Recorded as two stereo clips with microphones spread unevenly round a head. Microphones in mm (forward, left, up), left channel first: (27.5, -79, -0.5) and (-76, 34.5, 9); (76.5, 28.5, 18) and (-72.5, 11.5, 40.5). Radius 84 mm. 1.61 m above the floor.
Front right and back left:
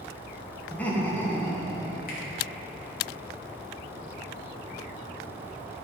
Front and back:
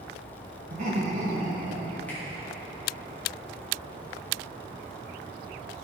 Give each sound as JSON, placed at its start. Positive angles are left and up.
{"t": 0.7, "sound": "laughter", "azimuth_deg": -130, "distance_m": 2.5}
{"t": 2.1, "sound": "a finger snap", "azimuth_deg": -75, "distance_m": 2.5}